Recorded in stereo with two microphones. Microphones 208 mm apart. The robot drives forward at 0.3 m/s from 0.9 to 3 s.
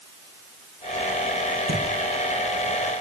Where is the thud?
65° right (ahead or behind), 9 m.